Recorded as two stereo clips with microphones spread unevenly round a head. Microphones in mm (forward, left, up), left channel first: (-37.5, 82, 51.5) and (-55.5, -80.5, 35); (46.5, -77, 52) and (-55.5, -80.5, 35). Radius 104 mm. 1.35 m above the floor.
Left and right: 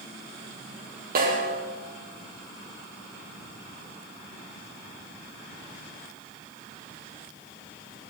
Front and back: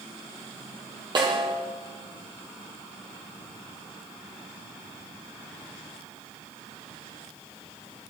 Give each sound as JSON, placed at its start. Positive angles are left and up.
{"t": 1.1, "sound": "a snare drum", "azimuth_deg": -130, "distance_m": 8.0}